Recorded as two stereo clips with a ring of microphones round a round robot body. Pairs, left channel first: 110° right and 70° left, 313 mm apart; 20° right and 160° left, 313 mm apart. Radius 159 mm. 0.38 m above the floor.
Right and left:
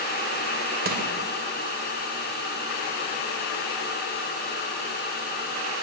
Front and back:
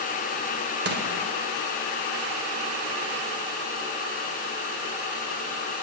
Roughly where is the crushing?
Behind left.